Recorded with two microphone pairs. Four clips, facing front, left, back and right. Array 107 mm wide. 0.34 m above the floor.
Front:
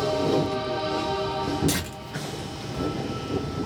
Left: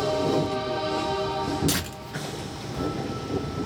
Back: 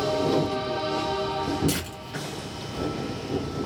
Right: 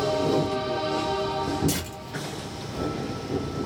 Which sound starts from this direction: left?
Tearing paper, at 1.7 s.